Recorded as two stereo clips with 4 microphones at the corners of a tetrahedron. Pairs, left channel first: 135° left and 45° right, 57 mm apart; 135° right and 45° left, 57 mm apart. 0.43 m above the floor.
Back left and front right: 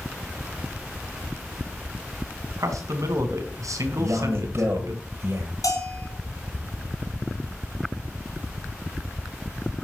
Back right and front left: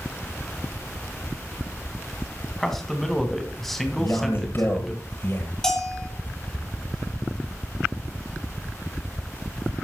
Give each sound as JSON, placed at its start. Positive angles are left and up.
{"t": 2.6, "sound": "a man speaking", "azimuth_deg": -45, "distance_m": 3.5}
{"t": 4.0, "sound": "a man speaking", "azimuth_deg": -85, "distance_m": 8.0}
{"t": 5.6, "sound": "a bell", "azimuth_deg": 150, "distance_m": 5.5}